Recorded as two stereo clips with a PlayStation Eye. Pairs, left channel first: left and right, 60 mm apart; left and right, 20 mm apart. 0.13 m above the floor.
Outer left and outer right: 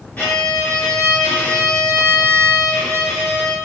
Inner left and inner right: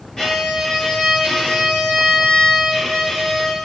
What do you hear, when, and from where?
0.2 s a violin: 30° left (ahead or behind), 1.9 m